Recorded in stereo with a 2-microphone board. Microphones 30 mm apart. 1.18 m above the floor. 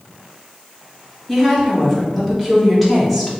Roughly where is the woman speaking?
Centre.